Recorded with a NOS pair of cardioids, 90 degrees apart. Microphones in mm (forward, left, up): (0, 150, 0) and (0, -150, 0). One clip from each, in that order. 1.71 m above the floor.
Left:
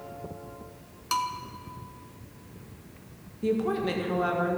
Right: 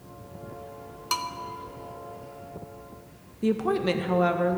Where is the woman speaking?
35° right, 1.6 m.